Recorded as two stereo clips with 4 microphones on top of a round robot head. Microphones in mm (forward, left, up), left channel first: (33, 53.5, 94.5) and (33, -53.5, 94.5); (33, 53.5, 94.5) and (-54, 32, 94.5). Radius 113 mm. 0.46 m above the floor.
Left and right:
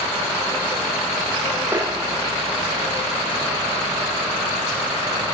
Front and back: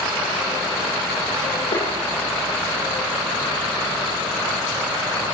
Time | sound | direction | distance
1.7 | tapping | 20° right | 8.5 m